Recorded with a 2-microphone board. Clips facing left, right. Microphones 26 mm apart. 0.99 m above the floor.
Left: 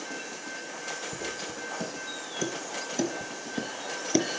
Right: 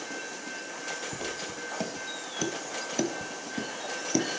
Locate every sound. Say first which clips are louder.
1.1 s footsteps: even; 60° right (ahead or behind), 1.8 m; by 4.2 s 25° left (ahead or behind), 1.1 m